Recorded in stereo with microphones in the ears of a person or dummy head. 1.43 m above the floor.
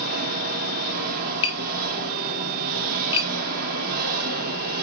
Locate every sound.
0.0 s an engine running: 50° right (ahead or behind), 2 m
1.4 s tapping: 30° left (ahead or behind), 3.5 m